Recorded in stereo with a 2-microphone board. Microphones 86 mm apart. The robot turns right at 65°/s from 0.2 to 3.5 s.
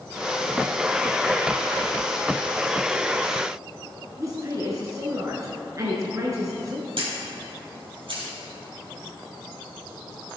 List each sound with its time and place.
4.2 s a woman speaking: 35° right (ahead or behind), 1.3 m
7.0 s a camera shutter: 65° right (ahead or behind), 3 m